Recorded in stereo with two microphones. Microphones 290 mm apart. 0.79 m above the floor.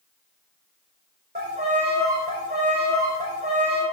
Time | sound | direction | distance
1.4 | a violin | 35° right (ahead or behind) | 6 m